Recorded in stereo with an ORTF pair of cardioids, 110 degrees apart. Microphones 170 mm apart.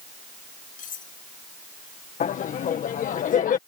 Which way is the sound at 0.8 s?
50° left.